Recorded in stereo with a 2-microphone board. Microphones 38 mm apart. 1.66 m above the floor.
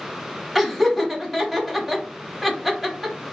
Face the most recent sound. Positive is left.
turn(degrees=-10)  # may be behind; listen again after turning